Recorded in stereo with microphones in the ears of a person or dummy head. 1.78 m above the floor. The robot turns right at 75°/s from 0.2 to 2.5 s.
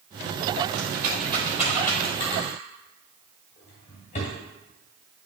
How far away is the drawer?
About 1.9 m.